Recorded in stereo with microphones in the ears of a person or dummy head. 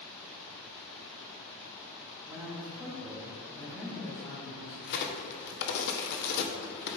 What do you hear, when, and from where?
2.3 s a man speaking: 15° right (ahead or behind), 1.5 m; by 4.7 s 40° left (ahead or behind), 2 m
4.8 s a crack: 55° left (ahead or behind), 0.8 m